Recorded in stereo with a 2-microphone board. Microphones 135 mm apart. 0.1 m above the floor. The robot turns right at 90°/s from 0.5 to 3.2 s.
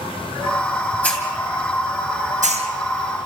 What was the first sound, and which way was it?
A hiss, 15° left (ahead or behind).